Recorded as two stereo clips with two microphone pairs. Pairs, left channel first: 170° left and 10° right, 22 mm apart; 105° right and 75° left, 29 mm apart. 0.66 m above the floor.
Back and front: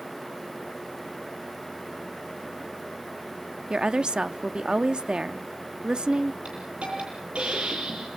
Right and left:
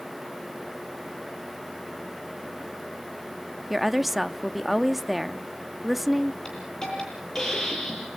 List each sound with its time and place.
3.7 s a woman speaking: 10° right, 0.8 m
6.5 s a hiss: 35° right, 9.5 m